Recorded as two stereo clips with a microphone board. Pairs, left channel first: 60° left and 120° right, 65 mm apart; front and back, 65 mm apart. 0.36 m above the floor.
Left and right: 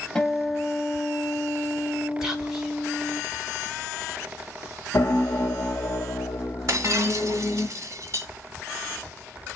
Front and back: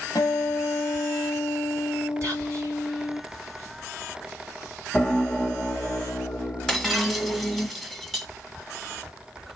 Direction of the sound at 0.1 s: 15° right.